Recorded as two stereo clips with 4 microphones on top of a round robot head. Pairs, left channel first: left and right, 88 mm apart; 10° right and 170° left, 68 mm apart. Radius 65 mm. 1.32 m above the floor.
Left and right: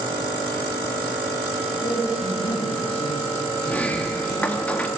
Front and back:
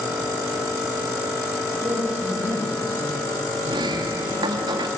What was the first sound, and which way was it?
A man speaking, 105° left.